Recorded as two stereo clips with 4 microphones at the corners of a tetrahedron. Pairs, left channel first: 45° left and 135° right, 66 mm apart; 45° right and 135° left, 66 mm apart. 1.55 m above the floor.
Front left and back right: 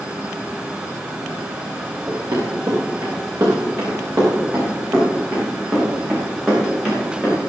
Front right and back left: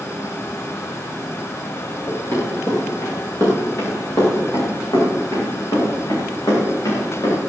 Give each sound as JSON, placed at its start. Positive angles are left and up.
{"t": 2.1, "sound": "running footsteps", "azimuth_deg": -100, "distance_m": 7.0}